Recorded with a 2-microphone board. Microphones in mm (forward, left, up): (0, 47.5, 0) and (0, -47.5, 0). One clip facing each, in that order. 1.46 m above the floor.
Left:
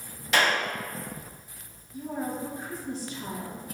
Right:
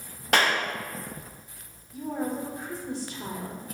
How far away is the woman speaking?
About 2.5 m.